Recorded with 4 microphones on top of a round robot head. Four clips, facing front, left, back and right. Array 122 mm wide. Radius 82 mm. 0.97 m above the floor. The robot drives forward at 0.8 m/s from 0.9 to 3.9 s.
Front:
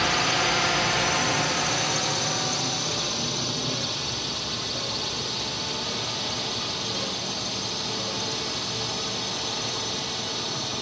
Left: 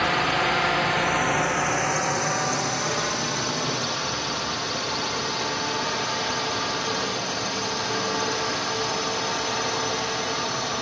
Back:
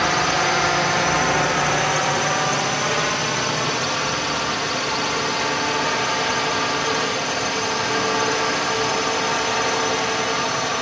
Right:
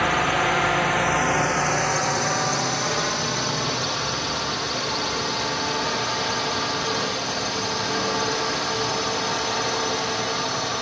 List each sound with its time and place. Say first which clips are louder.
0.0 s a drone: right 2 dB, back 5 dB; 165° right; by 10.8 s 175° right